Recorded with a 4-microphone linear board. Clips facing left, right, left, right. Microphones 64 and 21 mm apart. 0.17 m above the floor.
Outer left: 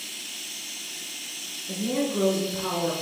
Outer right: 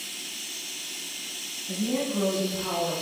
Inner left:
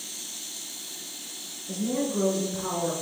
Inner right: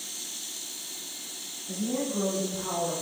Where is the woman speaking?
Centre (ahead or behind), 1.0 m; by 2.9 s 25° left (ahead or behind), 1.3 m.